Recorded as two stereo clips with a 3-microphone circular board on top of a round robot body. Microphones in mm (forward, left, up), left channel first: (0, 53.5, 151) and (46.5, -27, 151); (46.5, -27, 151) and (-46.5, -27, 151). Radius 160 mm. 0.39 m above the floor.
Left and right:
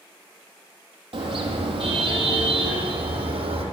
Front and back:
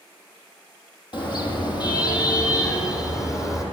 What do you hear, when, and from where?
1.1 s a car horn: 40° right, 7 m; by 3.6 s 60° right, 8.5 m